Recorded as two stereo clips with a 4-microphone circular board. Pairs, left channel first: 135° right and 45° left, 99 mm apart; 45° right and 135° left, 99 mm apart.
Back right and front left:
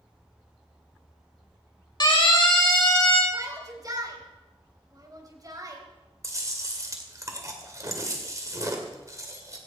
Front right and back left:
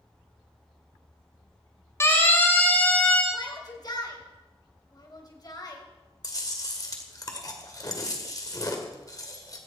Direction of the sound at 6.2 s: 5° right.